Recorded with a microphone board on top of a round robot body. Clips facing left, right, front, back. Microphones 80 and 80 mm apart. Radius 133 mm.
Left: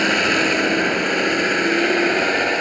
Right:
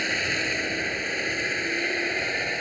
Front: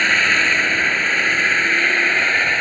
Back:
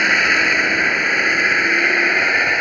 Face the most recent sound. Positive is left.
turn(degrees=100)